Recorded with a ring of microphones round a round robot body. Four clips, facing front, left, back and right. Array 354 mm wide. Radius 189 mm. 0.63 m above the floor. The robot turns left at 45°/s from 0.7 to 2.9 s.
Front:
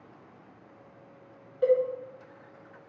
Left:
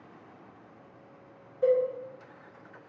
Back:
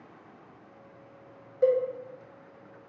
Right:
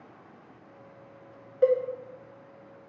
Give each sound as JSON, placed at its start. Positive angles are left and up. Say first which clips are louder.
{"t": 1.6, "sound": "a cowbell", "louder": "right 1 dB, even", "azimuth_deg": -100, "distance_m": 0.6}